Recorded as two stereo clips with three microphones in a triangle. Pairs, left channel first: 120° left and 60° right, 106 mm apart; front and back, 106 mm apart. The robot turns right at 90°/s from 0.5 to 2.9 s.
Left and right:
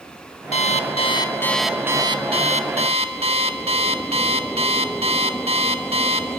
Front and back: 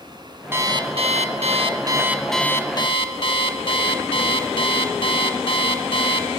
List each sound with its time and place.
0.5 s an alarm clock: 110° left, 1.0 m; by 6.3 s 35° right, 1.0 m